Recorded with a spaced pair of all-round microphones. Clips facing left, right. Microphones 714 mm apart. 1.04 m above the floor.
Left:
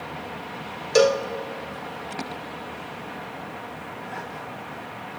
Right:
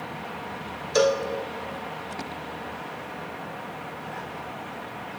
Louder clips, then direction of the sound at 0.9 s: Left 3 dB; 60° left (ahead or behind).